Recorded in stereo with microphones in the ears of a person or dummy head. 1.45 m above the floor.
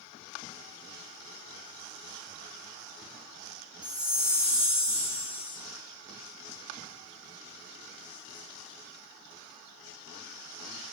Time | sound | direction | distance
3.8 | a chime | 5° right (ahead or behind) | 0.6 m